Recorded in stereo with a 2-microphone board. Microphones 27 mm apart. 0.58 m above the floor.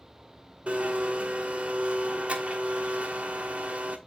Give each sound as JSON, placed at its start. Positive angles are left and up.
{"t": 0.7, "sound": "a blender", "side_deg": -50, "distance_m": 1.4}